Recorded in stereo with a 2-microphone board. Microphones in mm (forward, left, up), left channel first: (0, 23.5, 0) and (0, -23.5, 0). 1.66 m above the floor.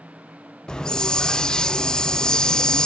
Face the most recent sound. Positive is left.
turn(degrees=15)  # may be behind; listen again after turning